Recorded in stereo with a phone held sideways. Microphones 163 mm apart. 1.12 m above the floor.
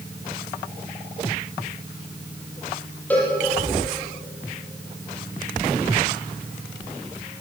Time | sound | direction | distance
3.1 | a cowbell | 10° left (ahead or behind) | 6.5 m